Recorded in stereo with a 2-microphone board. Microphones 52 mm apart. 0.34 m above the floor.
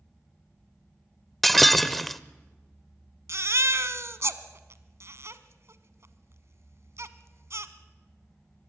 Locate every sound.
1.4 s breaking glass: centre (ahead or behind), 0.6 m
3.3 s a baby crying: 60° right (ahead or behind), 1.0 m